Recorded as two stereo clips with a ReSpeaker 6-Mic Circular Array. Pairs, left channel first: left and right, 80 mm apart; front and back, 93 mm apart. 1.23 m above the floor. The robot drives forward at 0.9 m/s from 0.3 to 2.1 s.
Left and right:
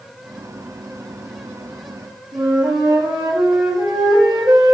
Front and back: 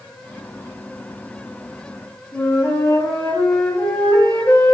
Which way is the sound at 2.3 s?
60° right.